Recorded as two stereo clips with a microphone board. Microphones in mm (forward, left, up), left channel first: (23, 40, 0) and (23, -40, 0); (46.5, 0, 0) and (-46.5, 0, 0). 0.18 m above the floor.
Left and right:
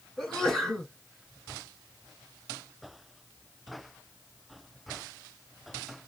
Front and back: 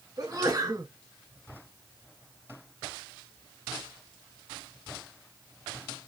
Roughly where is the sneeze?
Behind.